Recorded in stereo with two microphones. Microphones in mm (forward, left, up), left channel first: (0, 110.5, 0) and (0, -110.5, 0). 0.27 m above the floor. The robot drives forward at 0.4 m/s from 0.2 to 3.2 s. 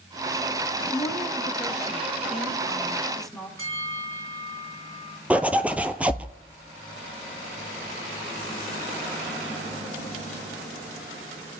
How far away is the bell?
About 2.5 m.